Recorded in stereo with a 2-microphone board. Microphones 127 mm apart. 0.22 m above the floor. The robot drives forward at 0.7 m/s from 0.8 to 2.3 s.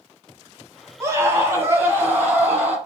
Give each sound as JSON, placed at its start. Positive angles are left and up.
{"t": 1.0, "sound": "a scream", "side_deg": -25, "distance_m": 1.2}